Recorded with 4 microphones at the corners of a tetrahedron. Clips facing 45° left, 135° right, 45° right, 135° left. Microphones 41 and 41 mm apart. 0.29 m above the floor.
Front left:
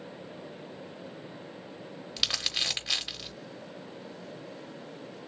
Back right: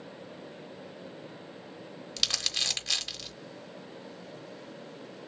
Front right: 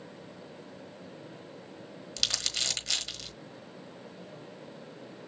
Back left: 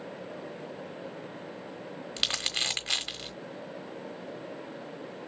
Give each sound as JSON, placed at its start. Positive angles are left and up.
{"t": 2.2, "sound": "crumpling", "azimuth_deg": 115, "distance_m": 1.1}